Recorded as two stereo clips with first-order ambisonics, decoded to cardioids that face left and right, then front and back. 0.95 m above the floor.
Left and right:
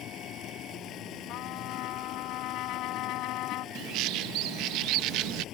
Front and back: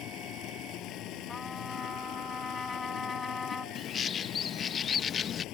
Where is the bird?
65° right.